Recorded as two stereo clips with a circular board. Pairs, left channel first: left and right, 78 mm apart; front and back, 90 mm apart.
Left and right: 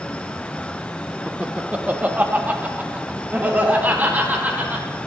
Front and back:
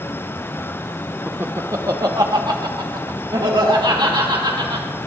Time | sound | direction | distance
1.3 | laughter | 145° right | 0.8 m